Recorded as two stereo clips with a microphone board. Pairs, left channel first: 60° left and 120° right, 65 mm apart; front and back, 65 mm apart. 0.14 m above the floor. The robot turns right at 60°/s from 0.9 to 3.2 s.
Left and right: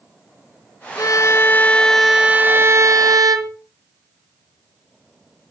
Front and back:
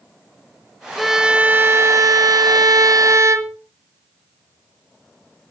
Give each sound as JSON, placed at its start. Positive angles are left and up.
{"t": 1.0, "sound": "a violin", "azimuth_deg": 90, "distance_m": 1.0}